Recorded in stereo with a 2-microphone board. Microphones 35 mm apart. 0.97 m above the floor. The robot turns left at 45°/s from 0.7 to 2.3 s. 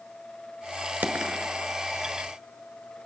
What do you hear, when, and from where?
1.0 s a dropped coin: 45° right (ahead or behind), 1.2 m